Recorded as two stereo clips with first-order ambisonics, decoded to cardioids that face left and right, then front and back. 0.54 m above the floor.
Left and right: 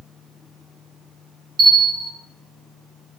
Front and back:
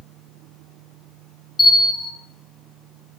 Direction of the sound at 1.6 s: 55° right.